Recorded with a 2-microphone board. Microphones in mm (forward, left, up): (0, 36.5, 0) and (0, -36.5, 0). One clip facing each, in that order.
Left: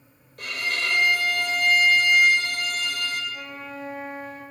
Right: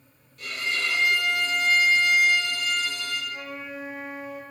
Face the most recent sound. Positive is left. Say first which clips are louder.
# even
turn(degrees=-10)  # may be behind; listen again after turning